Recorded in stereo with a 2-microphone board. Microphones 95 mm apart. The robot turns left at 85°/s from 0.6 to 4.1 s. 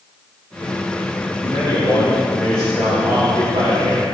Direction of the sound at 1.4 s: 105° left.